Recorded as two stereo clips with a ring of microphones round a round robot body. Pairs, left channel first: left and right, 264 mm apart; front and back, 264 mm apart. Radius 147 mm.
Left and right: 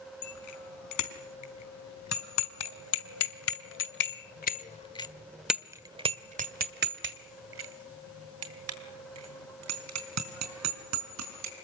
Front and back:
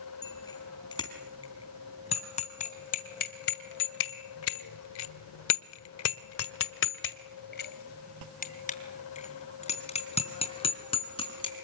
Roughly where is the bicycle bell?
Left.